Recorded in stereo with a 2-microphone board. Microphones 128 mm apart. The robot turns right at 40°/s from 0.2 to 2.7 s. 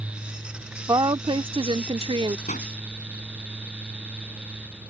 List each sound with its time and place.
0.9 s a woman speaking: 135° right; by 2.4 s 75° right
2.5 s a pop: 80° left; by 2.7 s 85° left